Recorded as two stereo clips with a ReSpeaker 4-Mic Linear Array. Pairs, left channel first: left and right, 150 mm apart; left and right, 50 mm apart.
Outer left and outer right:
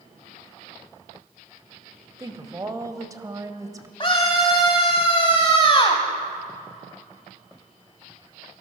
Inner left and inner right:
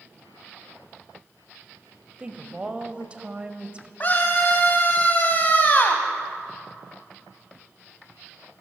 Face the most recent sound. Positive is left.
turn(degrees=35)  # may be behind; listen again after turning